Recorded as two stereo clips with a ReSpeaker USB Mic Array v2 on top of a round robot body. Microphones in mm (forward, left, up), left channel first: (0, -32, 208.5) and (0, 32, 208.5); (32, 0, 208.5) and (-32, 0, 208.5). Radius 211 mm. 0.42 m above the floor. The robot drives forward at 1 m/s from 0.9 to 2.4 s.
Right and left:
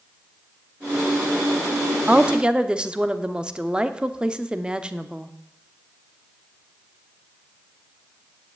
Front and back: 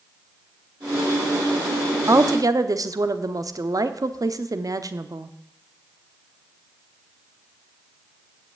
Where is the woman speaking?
155° left, 1.0 m; by 5.3 s 165° left, 1.2 m.